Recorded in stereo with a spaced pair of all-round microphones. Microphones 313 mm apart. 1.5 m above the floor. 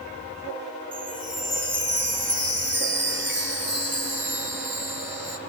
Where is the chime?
35° right (ahead or behind), 1.6 m.